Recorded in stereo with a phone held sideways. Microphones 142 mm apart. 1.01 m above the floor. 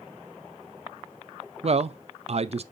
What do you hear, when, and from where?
1.6 s a man speaking: 45° right (ahead or behind), 0.5 m